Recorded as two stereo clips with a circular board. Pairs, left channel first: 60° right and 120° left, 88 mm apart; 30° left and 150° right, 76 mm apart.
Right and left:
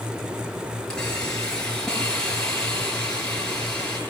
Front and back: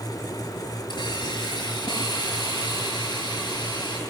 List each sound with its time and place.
0.9 s a hiss: 20° left, 6.5 m